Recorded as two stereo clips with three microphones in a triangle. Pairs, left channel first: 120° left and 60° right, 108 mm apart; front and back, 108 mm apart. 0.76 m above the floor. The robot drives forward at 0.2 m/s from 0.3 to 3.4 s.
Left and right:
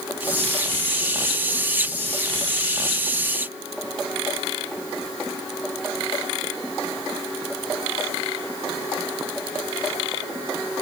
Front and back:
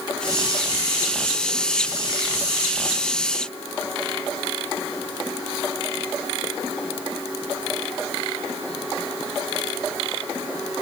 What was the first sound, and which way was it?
Only background noise.